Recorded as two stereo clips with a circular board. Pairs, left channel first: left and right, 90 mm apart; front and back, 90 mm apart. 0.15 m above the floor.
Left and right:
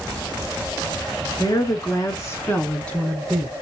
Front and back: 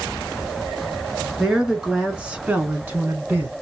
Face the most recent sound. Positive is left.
turn(degrees=-160)